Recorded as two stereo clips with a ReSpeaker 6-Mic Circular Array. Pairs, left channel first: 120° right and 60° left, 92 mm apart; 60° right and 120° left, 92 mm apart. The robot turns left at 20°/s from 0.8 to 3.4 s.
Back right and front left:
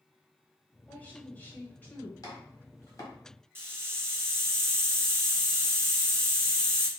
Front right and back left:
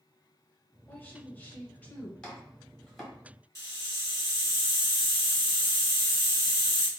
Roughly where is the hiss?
Ahead.